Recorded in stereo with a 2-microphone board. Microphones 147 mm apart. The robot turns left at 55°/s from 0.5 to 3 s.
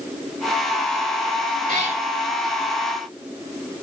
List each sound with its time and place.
1.7 s a cat meowing: 70° right (ahead or behind), 3.5 m; by 2.0 s 50° right (ahead or behind), 3.5 m